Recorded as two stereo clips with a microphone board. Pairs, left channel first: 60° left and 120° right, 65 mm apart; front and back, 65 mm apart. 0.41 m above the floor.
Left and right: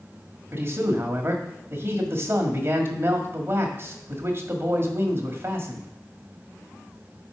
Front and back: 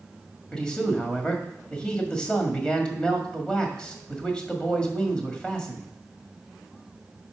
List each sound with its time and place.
0.5 s a man speaking: 75° right, 1.8 m